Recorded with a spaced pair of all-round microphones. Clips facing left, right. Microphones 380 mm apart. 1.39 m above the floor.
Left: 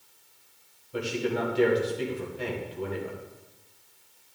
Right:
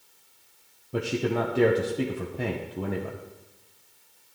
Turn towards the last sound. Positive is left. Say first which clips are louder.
# right 2 dB
turn(degrees=-60)  # may be behind; listen again after turning